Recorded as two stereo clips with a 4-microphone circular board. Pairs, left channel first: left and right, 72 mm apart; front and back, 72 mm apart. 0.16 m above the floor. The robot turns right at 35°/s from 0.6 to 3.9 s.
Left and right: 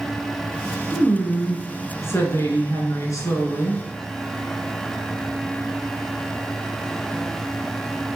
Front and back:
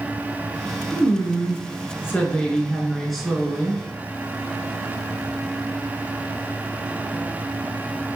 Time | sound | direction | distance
0.9 | a woman speaking | 10° left | 2.5 m